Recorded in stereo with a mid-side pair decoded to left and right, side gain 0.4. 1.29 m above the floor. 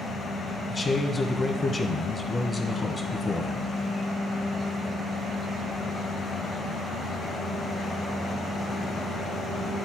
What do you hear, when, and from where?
0.7 s a man speaking: 30° left, 1.7 m